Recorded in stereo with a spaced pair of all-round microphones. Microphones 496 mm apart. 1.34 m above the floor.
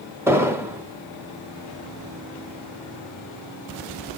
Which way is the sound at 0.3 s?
5° right (ahead or behind).